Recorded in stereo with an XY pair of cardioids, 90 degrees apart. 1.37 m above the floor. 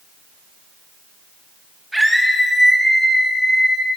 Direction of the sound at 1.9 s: 15° right.